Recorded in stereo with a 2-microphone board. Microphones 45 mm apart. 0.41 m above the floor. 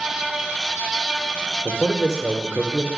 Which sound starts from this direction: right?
A man speaking, at 1.6 s.